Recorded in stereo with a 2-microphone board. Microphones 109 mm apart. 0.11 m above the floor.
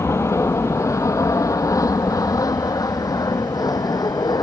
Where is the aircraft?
25° left (ahead or behind); by 4.4 s 35° left (ahead or behind).